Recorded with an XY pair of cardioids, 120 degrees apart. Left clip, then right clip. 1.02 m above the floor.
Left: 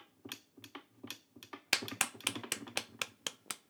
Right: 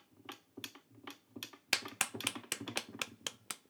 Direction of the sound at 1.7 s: 10° left.